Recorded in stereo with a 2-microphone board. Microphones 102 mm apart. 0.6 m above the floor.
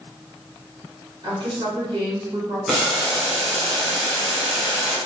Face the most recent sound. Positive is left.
turn(degrees=-5)  # may be behind; listen again after turning